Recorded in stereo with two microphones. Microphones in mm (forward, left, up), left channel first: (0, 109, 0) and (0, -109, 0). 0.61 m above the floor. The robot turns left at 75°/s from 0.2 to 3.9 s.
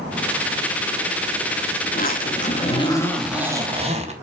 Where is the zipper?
105° left, 1.3 m; by 4.1 s 50° right, 1.3 m.